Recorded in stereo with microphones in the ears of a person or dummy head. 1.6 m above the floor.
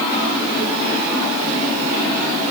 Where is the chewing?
No chewing in this recording.